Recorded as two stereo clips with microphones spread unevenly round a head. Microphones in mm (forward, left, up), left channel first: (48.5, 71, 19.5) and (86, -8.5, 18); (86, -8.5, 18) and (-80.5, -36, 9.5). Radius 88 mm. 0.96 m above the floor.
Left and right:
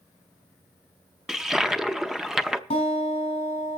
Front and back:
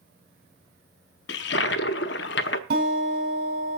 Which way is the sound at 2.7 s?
150° left.